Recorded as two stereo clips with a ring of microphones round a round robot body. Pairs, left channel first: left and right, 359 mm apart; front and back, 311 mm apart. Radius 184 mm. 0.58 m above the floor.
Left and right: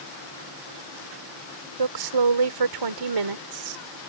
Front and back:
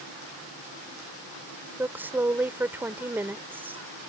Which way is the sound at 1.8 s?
95° right.